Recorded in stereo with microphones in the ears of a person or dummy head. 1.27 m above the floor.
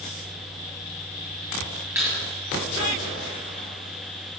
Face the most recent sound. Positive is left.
turn(degrees=-5)  # may be behind; listen again after turning